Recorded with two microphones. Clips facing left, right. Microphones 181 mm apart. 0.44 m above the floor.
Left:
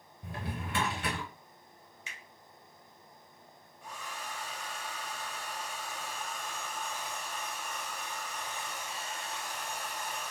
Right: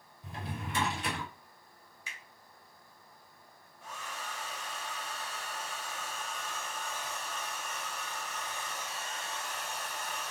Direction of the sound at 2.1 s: 20° left (ahead or behind).